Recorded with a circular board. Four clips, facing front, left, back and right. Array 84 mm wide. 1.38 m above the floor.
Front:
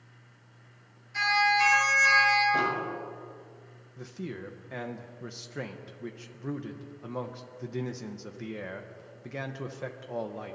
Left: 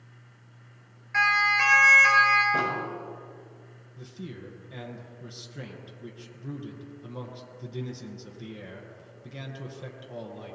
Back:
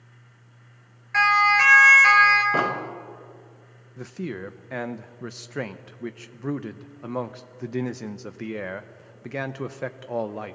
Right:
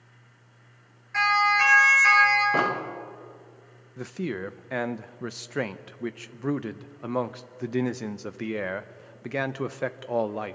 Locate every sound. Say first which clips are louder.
1.1 s a siren: right 2 dB, back 6 dB; 170° left, 5 m; by 2.4 s straight behind, 4.5 m
2.5 s an explosion: right 3 dB, back 3 dB; 140° right, 2 m
4.0 s a man speaking: right 10 dB, back 6 dB; 115° right, 0.8 m